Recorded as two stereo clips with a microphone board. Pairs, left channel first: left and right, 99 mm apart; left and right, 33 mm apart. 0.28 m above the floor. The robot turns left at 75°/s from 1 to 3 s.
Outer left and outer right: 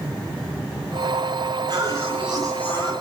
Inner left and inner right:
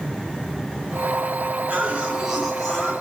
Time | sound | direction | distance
1.7 | a cough | 125° right | 3.5 m